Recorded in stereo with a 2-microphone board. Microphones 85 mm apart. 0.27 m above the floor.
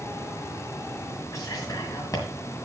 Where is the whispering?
45° left (ahead or behind), 2 m.